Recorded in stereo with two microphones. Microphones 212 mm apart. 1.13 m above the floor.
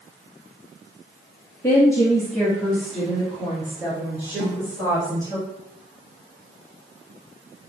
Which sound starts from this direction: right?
A snare drum, at 4.4 s.